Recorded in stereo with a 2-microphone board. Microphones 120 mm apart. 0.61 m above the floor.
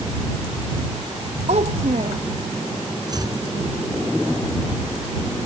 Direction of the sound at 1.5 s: 65° right (ahead or behind).